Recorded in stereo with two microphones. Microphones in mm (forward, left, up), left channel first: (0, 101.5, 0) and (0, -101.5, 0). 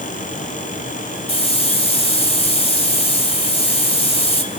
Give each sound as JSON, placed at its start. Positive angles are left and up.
{"t": 1.3, "sound": "a hiss", "side_deg": 30, "distance_m": 3.0}